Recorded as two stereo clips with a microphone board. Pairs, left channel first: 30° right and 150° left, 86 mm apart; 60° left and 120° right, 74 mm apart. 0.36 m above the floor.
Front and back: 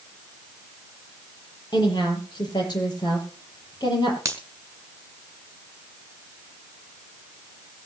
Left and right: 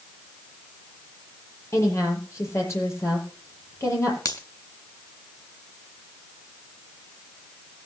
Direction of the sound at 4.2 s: 95° left.